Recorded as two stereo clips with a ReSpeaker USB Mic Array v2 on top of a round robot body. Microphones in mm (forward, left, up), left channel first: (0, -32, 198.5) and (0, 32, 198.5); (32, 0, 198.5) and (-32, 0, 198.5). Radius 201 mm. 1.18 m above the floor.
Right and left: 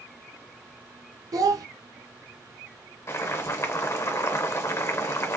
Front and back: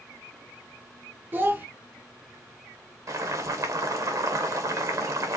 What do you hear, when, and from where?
1.3 s a child speaking: 120° left, 0.8 m
3.1 s boiling: 140° right, 1.4 m